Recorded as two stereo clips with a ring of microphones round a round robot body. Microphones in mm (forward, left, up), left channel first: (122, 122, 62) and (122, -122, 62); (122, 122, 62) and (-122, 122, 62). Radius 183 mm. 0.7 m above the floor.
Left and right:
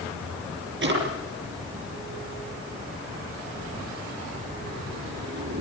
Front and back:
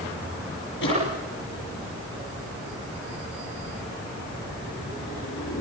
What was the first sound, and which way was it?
A drawer, 55° right.